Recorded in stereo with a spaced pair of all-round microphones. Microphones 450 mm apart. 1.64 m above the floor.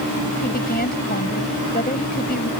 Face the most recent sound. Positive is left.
turn(degrees=20)  # may be behind; listen again after turning